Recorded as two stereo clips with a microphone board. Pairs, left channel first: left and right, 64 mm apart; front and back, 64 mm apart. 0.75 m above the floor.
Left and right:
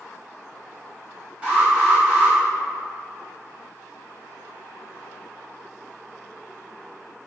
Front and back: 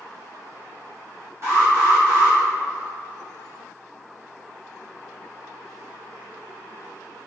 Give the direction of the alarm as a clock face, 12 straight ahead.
5 o'clock.